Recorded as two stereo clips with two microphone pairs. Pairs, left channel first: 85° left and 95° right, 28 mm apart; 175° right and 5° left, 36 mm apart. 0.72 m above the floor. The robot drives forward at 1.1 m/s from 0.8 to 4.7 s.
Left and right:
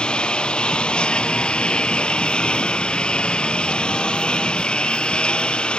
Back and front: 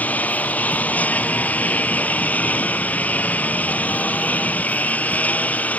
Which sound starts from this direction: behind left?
A lawn mower, at 0.0 s.